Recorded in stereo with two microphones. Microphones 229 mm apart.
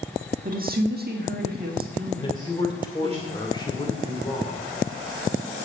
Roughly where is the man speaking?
Centre.